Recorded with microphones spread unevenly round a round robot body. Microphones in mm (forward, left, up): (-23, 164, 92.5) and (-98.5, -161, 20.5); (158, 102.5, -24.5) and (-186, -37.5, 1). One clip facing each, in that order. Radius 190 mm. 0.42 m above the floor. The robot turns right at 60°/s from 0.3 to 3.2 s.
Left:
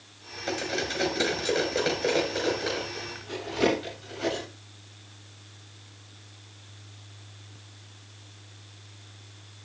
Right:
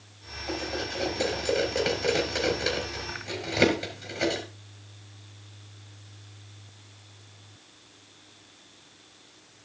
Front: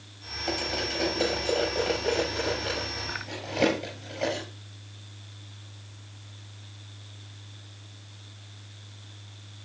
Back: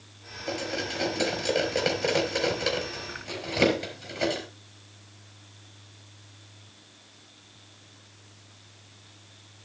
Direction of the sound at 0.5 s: 95° left.